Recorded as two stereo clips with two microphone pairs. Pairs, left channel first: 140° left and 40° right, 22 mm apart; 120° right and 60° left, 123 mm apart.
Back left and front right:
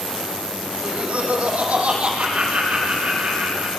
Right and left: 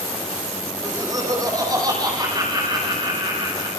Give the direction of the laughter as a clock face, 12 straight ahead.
12 o'clock.